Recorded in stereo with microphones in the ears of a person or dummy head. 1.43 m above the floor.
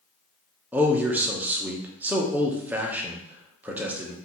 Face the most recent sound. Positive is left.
turn(degrees=-5)  # may be behind; listen again after turning